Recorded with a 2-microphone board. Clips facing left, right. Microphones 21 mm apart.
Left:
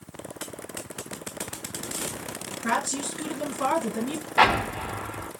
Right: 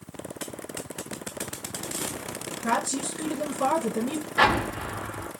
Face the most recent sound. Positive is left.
turn(degrees=30)  # may be behind; listen again after turning